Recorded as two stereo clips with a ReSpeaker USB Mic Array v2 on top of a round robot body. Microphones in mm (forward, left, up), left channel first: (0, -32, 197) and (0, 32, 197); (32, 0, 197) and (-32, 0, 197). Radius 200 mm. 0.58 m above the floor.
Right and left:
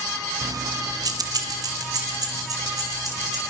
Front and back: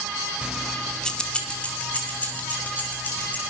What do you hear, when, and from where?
0.4 s keys jangling: 110° left, 0.7 m; by 3.4 s 65° left, 4.5 m